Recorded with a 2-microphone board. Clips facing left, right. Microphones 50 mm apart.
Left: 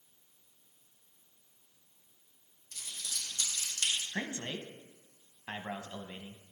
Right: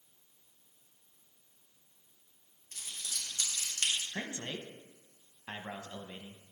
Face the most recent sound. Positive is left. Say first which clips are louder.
# left 2 dB
turn(degrees=20)  # may be behind; listen again after turning